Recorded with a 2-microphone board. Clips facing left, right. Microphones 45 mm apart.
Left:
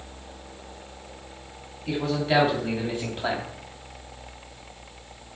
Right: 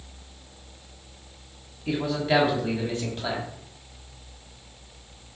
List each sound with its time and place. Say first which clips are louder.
1.9 s a man speaking: even; 15° right (ahead or behind), 2 m; by 3.5 s 30° left (ahead or behind), 2 m